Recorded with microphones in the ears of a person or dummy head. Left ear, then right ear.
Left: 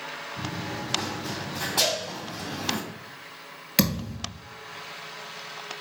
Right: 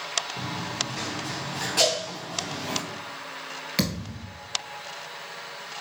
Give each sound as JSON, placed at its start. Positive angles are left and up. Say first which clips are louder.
{"t": 0.4, "sound": "running footsteps", "louder": "right 3 dB", "side_deg": -30, "distance_m": 1.3}
{"t": 1.8, "sound": "a cowbell", "louder": "right 3 dB", "side_deg": -45, "distance_m": 1.2}
{"t": 3.8, "sound": "a thud", "louder": "left 5 dB", "side_deg": 5, "distance_m": 1.4}